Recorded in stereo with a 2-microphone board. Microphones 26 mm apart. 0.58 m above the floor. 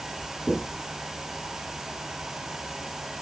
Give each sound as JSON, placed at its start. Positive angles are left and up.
{"t": 0.5, "sound": "knocking", "side_deg": 20, "distance_m": 5.0}